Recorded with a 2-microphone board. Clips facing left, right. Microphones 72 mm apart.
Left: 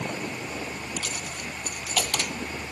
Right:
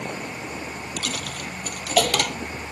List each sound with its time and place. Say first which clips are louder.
1.0 s a dropped coin: right 3 dB; 70° right (ahead or behind)